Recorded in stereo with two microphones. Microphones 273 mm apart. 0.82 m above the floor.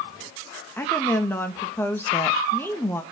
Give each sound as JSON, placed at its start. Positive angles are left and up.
{"t": 0.8, "sound": "a woman speaking", "side_deg": 10, "distance_m": 0.9}